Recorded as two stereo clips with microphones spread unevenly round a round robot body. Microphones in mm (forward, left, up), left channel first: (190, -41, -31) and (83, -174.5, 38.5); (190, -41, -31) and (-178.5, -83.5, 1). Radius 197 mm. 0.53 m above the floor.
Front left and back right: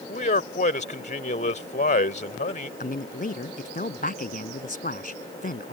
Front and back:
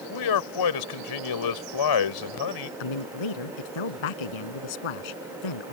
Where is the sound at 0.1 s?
30° left.